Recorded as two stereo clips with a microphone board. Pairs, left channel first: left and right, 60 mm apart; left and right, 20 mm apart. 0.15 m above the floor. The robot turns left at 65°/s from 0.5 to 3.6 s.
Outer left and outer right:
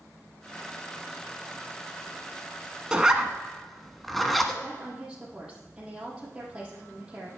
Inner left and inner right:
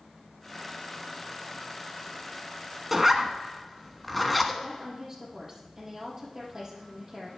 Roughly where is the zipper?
Centre.